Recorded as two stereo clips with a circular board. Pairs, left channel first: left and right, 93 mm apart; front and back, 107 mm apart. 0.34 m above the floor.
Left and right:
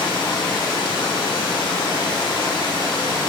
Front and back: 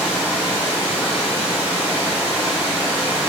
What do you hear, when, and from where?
0.0 s running water: 105° left, 1.9 m